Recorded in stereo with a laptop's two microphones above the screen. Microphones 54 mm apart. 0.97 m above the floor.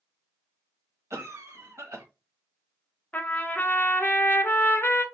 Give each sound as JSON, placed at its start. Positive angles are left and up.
{"t": 1.1, "sound": "a cough", "side_deg": -60, "distance_m": 1.1}
{"t": 3.1, "sound": "a trumpet", "side_deg": 35, "distance_m": 0.6}